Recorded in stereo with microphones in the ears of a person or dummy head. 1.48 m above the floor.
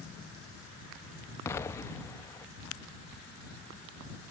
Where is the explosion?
20° left (ahead or behind).